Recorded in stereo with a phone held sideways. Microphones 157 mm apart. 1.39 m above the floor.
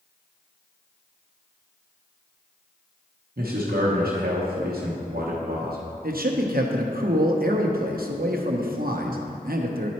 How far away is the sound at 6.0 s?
About 0.8 m.